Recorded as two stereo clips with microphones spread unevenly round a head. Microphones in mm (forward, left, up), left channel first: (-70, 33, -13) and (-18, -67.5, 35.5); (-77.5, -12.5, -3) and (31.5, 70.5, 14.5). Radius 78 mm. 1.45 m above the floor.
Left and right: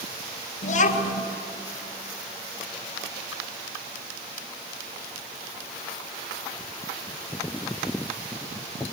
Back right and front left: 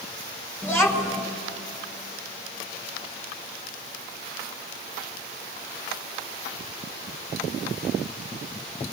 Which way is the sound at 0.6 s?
125° left.